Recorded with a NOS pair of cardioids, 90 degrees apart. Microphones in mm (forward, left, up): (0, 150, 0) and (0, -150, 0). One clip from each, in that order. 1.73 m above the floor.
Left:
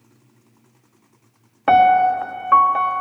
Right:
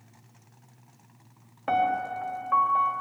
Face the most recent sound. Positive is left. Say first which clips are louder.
# left 13 dB
turn(degrees=60)